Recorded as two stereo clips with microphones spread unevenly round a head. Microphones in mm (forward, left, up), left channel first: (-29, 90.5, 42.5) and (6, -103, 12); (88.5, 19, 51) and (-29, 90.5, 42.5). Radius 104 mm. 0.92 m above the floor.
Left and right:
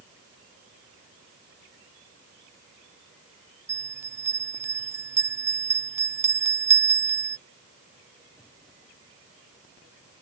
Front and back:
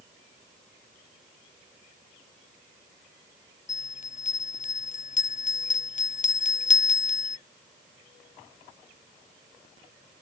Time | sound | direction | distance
3.7 | a bell | straight ahead | ?